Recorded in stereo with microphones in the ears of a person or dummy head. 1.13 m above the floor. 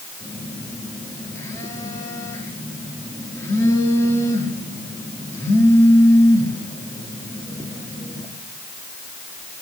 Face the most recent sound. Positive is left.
turn(degrees=15)  # may be behind; listen again after turning